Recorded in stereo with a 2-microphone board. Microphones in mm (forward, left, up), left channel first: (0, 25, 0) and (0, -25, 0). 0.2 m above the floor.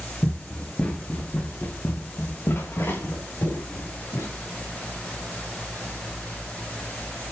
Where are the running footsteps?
5° left (ahead or behind), 2 m; by 4.3 s 65° left (ahead or behind), 4 m.